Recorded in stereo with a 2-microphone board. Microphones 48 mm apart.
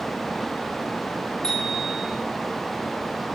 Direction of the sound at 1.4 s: 10° left (ahead or behind).